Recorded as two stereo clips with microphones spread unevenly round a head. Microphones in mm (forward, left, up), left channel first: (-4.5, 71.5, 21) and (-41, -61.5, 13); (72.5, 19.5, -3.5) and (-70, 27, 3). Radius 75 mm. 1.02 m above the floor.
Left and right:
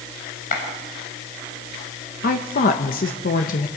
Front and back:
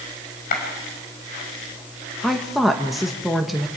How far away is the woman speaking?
About 1.2 m.